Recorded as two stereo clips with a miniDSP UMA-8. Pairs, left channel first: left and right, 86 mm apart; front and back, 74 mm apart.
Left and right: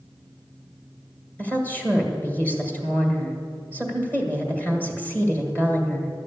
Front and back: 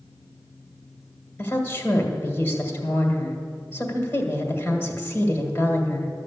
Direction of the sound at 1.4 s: 35° left.